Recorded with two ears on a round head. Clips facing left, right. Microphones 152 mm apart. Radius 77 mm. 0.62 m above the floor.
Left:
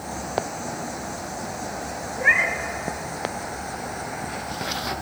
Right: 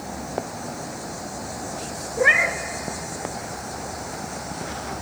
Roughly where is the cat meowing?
Right.